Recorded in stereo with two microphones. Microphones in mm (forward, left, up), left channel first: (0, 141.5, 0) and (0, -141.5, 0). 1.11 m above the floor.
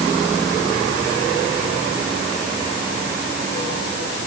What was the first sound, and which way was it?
Only background noise.